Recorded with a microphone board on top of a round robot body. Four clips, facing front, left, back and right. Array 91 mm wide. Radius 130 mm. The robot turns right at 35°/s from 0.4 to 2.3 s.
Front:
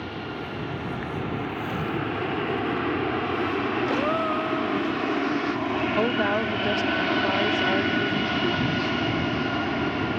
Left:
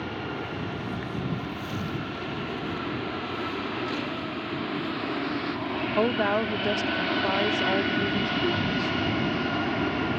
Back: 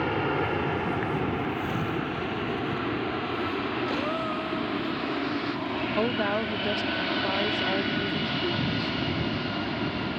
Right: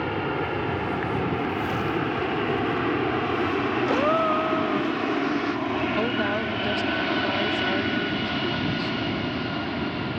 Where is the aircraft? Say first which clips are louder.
Right 6 dB, back 7 dB; 140° right; by 10.2 s 35° left.